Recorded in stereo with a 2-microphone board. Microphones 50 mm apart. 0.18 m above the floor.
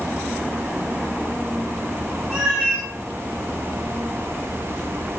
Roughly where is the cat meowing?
Centre.